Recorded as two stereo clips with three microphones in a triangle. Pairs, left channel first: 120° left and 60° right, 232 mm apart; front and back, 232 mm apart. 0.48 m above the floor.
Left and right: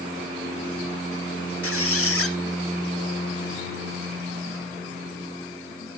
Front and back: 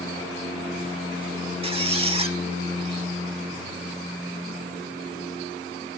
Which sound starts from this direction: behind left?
A squeak, at 1.6 s.